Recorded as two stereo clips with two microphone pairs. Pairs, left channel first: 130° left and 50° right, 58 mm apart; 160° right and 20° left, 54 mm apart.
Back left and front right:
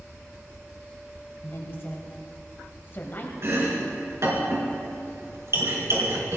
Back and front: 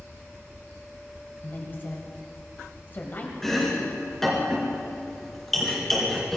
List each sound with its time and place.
1.4 s a woman speaking: 165° left, 1.7 m
3.4 s chopping: 75° right, 4.5 m